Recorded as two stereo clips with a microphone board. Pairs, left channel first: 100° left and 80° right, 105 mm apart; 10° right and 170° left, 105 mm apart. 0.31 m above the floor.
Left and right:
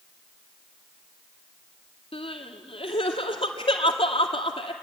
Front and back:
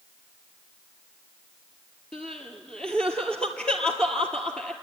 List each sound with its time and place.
2.1 s crying: 70° left, 1.7 m